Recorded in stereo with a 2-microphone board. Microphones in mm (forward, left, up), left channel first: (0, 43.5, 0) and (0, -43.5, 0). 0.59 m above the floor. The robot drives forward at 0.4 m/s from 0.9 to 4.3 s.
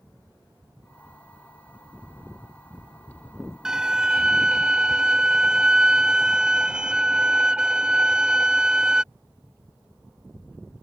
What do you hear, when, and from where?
3.6 s a violin: 5° right (ahead or behind); by 9.0 s 10° right (ahead or behind)